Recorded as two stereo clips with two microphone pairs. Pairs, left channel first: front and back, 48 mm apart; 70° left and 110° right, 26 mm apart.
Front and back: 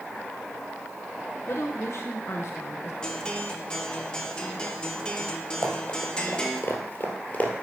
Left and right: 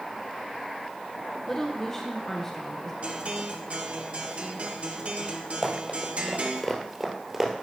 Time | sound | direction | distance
1.5 | a woman speaking | straight ahead | 0.8 m
3.0 | a guitar | 70° right | 1.0 m
5.6 | running footsteps | 15° left | 2.5 m